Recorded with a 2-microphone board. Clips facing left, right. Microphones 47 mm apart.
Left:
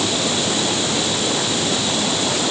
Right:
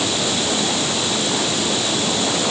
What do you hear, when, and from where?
Only background noise.